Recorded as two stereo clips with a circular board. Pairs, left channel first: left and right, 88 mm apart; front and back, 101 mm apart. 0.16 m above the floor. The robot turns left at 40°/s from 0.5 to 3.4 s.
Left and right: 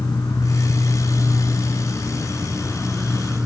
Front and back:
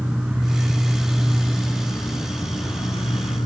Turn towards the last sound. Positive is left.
turn(degrees=-15)